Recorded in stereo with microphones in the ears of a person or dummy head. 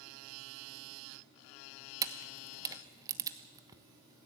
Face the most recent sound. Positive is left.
turn(degrees=-15)  # may be behind; listen again after turning